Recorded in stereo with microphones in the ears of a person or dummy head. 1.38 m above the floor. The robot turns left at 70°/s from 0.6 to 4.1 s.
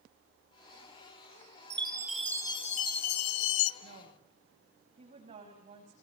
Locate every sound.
1.7 s a chime: 150° right, 0.8 m; by 3.7 s 70° left, 0.8 m
3.8 s a woman speaking: 60° right (ahead or behind), 7 m; by 5.9 s 40° right (ahead or behind), 7 m